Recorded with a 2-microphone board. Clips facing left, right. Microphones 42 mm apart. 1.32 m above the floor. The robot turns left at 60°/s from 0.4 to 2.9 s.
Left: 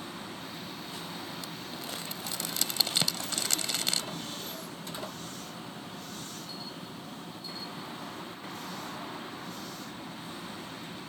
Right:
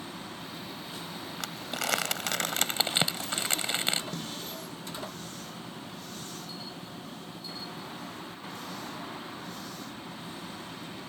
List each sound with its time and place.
1.4 s crumpling: 60° right (ahead or behind); by 4.0 s 30° right (ahead or behind)
4.1 s a snare drum: 85° right